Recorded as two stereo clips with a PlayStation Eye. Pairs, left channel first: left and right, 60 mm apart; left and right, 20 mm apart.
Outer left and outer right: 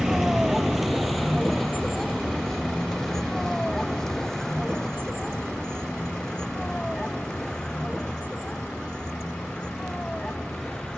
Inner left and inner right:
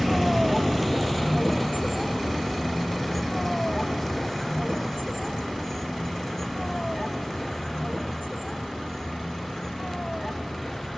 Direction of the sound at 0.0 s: 5° right (ahead or behind).